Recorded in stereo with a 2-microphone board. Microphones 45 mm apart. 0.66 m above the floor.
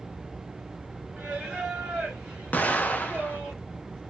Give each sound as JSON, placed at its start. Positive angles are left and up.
{"t": 1.2, "sound": "singing", "side_deg": -20, "distance_m": 1.2}
{"t": 2.5, "sound": "an explosion", "side_deg": 35, "distance_m": 0.5}